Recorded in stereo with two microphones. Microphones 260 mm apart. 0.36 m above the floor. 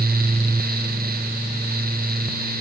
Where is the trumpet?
No trumpet in this recording.